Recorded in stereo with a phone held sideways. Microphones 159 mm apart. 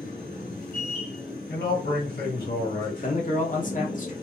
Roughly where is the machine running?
Left.